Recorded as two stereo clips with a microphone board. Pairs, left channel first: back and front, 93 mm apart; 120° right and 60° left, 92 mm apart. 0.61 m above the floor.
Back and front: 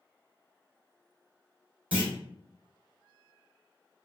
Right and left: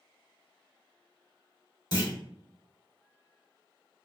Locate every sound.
1.9 s a clunk: 75° right, 0.9 m